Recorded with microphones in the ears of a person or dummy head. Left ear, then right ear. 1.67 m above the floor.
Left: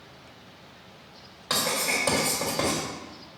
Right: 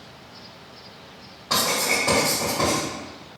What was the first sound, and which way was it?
Writing, 40° left (ahead or behind).